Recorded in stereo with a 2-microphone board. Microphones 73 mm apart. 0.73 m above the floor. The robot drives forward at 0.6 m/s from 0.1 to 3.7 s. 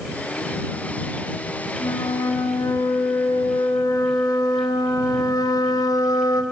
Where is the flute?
70° left (ahead or behind), 4.5 m; by 6.4 s 75° left (ahead or behind), 4 m.